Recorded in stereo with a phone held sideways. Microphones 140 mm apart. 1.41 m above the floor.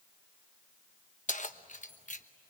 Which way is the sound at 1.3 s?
55° left (ahead or behind).